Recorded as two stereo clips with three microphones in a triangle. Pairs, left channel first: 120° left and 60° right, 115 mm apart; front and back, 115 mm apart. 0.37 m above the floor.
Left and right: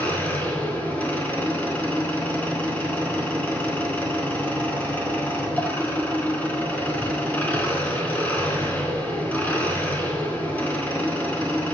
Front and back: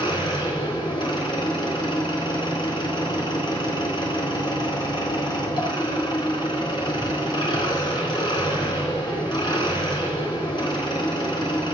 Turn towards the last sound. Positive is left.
turn(degrees=45)